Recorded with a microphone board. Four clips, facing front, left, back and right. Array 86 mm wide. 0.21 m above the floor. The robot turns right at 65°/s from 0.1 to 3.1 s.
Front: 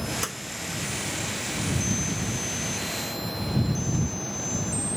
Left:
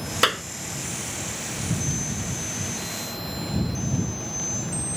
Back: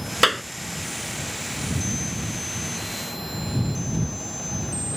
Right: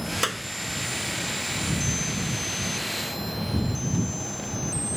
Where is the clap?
155° left; by 0.4 s 165° left.